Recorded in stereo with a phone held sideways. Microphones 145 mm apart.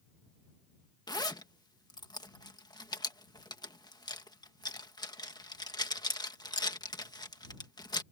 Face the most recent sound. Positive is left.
turn(degrees=25)  # may be behind; listen again after turning